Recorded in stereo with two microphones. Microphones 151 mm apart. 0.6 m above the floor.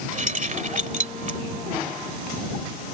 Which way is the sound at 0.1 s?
55° right (ahead or behind).